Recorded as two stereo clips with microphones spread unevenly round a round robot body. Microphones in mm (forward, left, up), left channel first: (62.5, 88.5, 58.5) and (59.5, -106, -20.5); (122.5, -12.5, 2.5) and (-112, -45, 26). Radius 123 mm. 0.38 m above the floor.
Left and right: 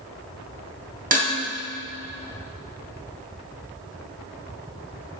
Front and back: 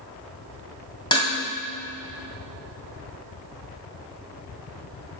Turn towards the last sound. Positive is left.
turn(degrees=-60)